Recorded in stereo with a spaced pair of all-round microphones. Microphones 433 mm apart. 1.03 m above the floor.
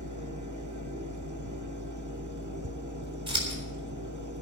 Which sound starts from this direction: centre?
Scissors, at 3.3 s.